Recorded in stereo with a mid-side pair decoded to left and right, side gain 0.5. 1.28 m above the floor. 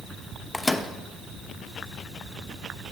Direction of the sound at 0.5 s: 10° left.